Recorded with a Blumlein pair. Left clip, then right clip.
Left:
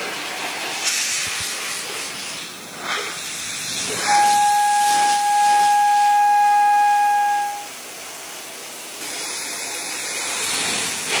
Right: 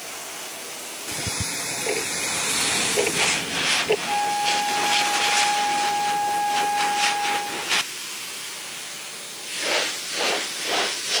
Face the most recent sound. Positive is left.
turn(degrees=65)